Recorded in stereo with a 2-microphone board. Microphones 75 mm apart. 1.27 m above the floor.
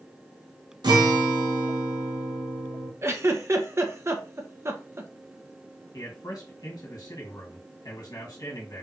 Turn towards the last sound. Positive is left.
turn(degrees=55)  # may be behind; listen again after turning